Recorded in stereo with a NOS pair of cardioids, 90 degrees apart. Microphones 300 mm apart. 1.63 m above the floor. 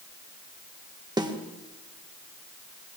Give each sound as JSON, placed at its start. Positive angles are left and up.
{"t": 1.2, "sound": "a snare drum", "azimuth_deg": -15, "distance_m": 1.8}